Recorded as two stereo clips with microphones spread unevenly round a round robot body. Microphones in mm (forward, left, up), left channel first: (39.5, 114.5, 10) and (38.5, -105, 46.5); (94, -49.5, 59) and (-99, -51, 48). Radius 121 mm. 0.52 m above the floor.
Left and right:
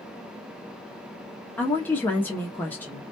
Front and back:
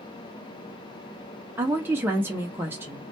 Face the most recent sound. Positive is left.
turn(degrees=130)